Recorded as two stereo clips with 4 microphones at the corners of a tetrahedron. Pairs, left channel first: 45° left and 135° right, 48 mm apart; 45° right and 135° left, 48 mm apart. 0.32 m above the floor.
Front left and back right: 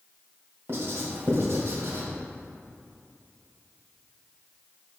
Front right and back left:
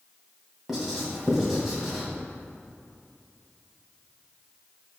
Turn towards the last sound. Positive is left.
turn(degrees=-145)